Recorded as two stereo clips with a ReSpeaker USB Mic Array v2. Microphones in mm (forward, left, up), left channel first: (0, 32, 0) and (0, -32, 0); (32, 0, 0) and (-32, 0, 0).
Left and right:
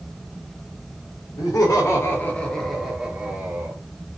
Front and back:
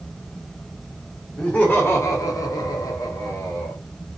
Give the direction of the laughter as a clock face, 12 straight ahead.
10 o'clock.